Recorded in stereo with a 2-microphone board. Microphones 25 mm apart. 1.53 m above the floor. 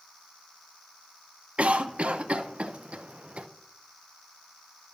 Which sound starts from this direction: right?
A cough, at 1.6 s.